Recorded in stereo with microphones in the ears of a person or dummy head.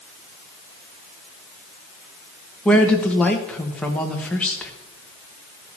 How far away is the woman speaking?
About 1.5 m.